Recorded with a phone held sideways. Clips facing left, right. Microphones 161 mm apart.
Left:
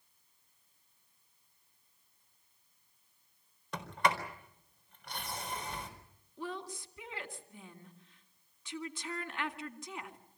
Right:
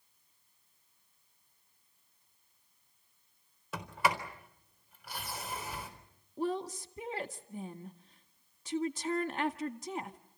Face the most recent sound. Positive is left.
turn(degrees=-40)  # may be behind; listen again after turning